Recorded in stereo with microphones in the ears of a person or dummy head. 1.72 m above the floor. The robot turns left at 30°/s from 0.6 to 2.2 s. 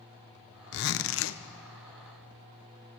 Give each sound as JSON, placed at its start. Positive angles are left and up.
{"t": 0.7, "sound": "a zipper", "side_deg": 60, "distance_m": 0.5}